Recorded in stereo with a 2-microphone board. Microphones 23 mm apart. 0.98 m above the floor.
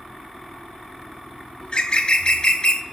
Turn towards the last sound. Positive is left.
turn(degrees=40)  # may be behind; listen again after turning